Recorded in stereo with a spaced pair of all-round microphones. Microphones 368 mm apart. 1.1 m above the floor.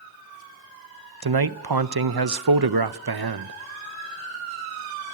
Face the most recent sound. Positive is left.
turn(degrees=-80)